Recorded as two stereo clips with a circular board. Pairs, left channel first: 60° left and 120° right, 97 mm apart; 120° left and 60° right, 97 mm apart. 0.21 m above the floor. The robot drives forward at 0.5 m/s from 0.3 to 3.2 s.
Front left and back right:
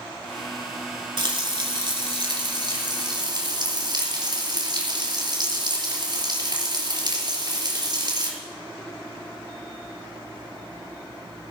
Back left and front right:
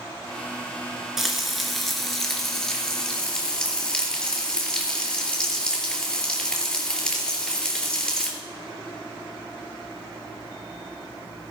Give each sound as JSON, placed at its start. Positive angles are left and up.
{"t": 1.2, "sound": "frying", "azimuth_deg": -145, "distance_m": 2.0}